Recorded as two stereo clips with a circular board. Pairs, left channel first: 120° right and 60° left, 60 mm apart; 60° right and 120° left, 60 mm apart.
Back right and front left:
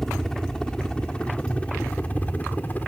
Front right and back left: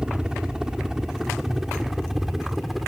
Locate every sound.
0.0 s a helicopter: 170° left; by 2.9 s 155° right